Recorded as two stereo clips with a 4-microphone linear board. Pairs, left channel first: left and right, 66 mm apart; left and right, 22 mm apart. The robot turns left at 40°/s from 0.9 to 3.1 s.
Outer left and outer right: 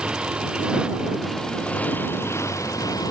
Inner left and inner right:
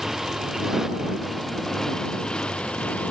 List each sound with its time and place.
0.0 s a motorcycle: 165° right; by 3.1 s 105° left